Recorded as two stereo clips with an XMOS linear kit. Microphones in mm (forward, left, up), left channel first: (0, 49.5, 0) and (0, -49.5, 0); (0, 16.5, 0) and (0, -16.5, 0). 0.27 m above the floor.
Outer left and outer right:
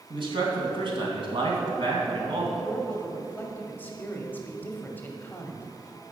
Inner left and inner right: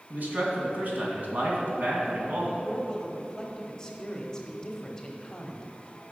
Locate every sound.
0.1 s a man speaking: 60° right (ahead or behind), 2.5 m
2.6 s a man speaking: 20° left (ahead or behind), 1.0 m